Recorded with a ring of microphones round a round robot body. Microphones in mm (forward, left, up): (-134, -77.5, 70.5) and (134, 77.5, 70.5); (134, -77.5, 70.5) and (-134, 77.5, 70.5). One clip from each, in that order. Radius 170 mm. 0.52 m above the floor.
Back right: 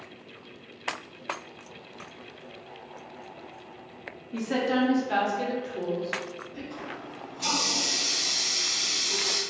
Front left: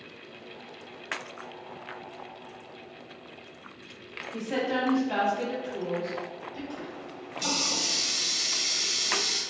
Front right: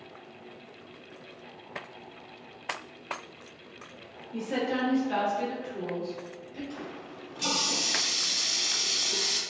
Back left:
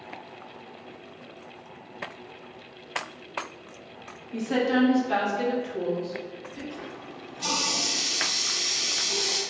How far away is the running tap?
About 1.4 m.